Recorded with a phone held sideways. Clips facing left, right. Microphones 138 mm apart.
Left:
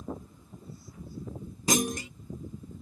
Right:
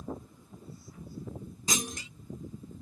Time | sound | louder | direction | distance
1.7 | a clunk | left 9 dB | 55° left (ahead or behind) | ?